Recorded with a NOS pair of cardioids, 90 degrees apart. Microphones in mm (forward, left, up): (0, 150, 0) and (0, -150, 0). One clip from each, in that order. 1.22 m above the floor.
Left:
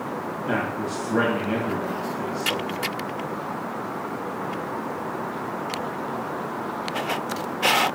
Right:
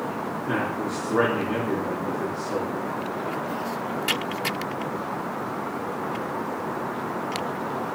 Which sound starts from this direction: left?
A man speaking, at 0.5 s.